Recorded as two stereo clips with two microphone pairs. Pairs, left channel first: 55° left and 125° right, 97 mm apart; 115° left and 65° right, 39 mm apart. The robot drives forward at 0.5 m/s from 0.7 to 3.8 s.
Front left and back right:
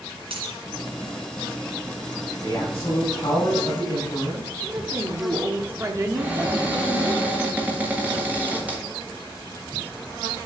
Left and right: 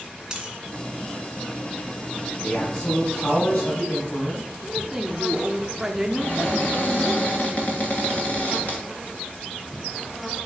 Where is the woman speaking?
125° right, 0.8 m.